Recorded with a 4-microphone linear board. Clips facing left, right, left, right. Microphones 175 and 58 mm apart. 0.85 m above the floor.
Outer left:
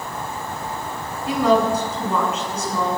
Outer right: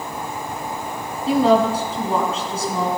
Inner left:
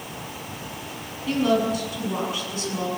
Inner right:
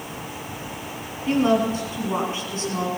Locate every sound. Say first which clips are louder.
1.3 s a woman speaking: outer right 2 dB, inner right 2 dB; 25° right (ahead or behind), 8 m; by 2.9 s 30° right (ahead or behind), 8.5 m